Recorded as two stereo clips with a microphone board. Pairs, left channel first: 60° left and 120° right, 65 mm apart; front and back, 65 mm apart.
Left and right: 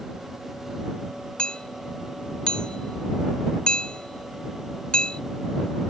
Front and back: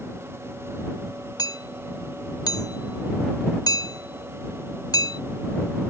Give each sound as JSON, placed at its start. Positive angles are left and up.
{"t": 1.4, "sound": "hammering", "azimuth_deg": -20}